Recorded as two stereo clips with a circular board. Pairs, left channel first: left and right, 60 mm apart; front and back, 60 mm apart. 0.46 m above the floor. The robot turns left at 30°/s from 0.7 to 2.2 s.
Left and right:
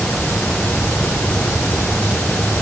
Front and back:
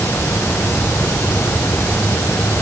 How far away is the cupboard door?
No cupboard door in this recording.